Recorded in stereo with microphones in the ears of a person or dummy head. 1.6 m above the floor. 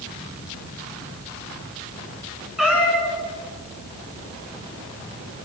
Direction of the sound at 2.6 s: 5° right (ahead or behind).